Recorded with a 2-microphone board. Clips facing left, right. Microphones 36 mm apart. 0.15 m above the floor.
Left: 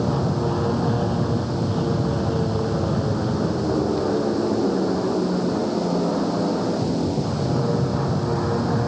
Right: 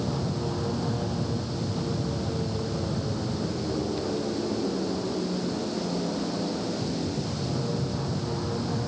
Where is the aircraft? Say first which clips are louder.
Left 7 dB; 30° left (ahead or behind); by 8.9 s 35° left (ahead or behind).